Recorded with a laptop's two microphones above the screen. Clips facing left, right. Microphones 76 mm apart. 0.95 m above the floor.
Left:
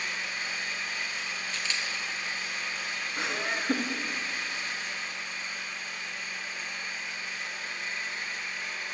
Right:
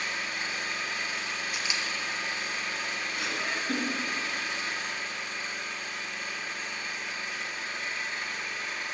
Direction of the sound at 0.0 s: 75° right (ahead or behind).